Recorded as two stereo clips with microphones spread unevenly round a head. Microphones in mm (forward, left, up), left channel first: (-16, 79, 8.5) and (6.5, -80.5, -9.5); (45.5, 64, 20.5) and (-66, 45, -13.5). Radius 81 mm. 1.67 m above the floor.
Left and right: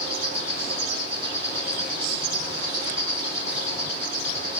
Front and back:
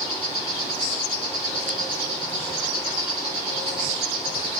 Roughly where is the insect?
Behind.